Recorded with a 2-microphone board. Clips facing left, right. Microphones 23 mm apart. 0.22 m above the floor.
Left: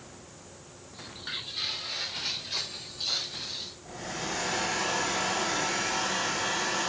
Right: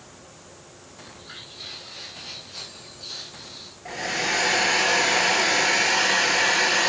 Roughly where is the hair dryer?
Right.